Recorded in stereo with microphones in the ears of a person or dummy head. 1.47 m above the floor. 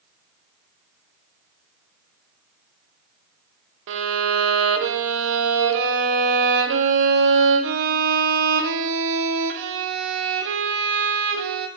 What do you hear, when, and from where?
3.9 s a violin: 65° right (ahead or behind), 0.7 m